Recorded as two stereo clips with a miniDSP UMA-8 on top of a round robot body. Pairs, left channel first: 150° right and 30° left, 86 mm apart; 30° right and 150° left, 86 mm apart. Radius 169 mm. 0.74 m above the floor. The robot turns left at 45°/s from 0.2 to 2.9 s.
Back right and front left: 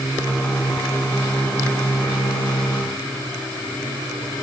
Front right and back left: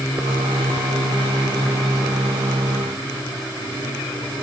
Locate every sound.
Only background noise.